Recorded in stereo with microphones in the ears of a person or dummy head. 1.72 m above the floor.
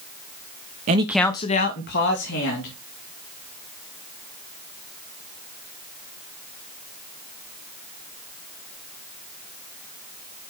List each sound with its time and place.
0.9 s a man speaking: 35° right (ahead or behind), 0.7 m; by 2.7 s 60° left (ahead or behind), 3 m